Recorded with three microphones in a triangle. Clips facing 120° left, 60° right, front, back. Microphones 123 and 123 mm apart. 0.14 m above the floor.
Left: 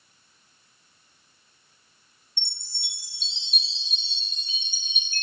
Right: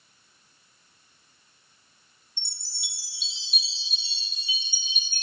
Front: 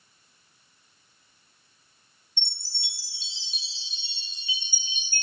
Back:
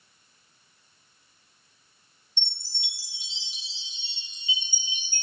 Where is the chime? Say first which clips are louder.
Left 1 dB, back 1 dB; 135° right, 1.2 m.